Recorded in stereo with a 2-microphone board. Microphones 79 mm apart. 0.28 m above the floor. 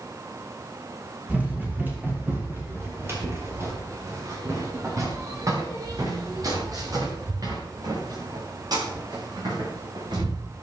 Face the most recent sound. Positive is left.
turn(degrees=-60)  # may be behind; listen again after turning